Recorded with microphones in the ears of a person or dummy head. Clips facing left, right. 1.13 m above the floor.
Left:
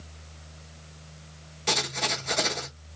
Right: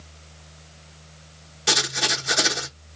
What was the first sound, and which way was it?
Writing, 15° right (ahead or behind).